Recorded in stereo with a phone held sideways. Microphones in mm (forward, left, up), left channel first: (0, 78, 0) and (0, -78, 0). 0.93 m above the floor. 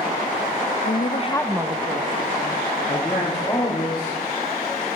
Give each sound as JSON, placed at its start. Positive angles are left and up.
{"t": 0.8, "sound": "a woman speaking", "side_deg": 70, "distance_m": 1.0}
{"t": 2.9, "sound": "a man speaking", "side_deg": 30, "distance_m": 2.5}